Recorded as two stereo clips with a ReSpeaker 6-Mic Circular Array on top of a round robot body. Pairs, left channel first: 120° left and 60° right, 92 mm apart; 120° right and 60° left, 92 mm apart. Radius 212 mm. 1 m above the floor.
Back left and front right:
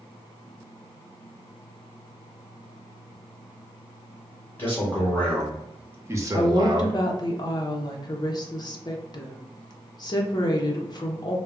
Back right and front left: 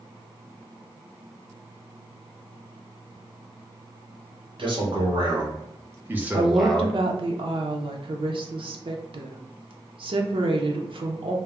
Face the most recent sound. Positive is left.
turn(degrees=75)